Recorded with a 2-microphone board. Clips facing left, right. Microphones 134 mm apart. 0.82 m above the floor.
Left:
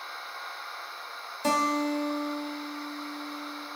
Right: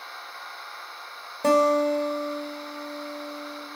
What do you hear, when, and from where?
1.4 s a guitar: 60° right (ahead or behind), 1.3 m